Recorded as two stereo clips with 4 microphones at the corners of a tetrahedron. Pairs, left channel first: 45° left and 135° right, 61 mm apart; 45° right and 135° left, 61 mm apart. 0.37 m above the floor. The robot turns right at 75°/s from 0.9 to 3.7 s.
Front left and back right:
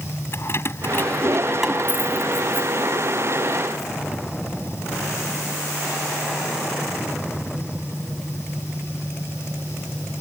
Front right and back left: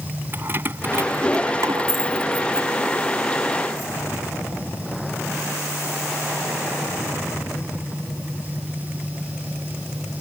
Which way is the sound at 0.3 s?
85° left.